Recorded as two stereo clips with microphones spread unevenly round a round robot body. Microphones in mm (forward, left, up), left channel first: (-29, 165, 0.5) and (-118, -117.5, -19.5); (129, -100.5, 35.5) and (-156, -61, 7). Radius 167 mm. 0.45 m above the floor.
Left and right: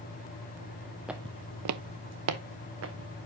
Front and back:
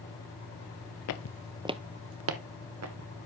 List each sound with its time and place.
1.1 s footsteps: 15° right, 0.7 m; by 3.1 s 155° right, 1.9 m